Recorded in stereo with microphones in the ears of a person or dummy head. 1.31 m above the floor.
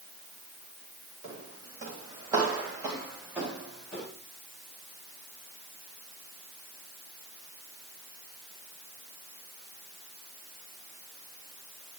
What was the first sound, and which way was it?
Footsteps, 35° right (ahead or behind).